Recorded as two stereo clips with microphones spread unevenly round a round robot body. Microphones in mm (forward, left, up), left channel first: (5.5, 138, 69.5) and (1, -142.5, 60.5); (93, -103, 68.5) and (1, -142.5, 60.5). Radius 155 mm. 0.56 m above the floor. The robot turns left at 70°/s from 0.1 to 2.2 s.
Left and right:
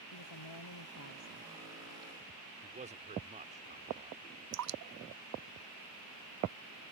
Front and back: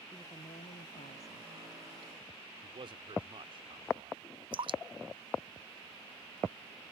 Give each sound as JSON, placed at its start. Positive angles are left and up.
{"t": 0.1, "sound": "a woman speaking", "azimuth_deg": 110}
{"t": 2.6, "sound": "a man speaking", "azimuth_deg": -150}
{"t": 4.5, "sound": "dripping", "azimuth_deg": -125}